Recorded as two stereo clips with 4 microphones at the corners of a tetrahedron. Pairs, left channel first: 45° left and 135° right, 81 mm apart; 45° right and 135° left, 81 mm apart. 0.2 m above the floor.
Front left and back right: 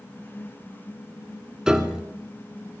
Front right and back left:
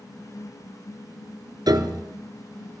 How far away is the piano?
About 0.9 m.